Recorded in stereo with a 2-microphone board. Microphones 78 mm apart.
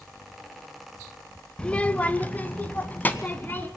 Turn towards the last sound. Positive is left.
turn(degrees=25)  # may be behind; listen again after turning